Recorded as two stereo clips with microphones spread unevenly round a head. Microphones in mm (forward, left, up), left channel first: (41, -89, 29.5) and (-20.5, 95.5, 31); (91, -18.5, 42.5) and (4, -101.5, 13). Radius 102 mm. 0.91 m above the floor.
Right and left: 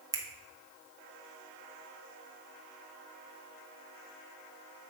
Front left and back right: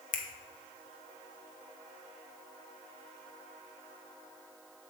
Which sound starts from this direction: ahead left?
A finger snap, at 0.1 s.